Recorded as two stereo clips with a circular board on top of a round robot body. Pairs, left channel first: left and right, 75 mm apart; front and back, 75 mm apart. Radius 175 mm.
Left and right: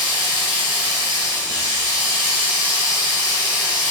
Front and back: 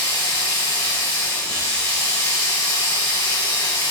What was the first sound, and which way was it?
Running water, 65° right.